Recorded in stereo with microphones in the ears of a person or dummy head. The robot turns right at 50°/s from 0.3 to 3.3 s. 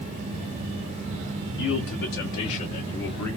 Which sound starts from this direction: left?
A man speaking, at 1.6 s.